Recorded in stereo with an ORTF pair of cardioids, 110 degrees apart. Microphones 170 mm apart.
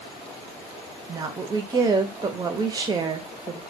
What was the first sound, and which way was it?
A woman speaking, 25° right.